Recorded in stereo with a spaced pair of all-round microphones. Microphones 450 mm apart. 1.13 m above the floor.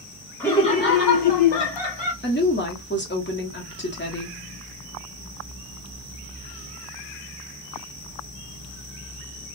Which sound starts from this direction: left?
A woman speaking, at 2.2 s.